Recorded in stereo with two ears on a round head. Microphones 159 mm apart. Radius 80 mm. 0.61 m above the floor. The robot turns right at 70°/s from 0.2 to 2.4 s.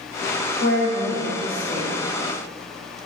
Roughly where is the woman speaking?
Left.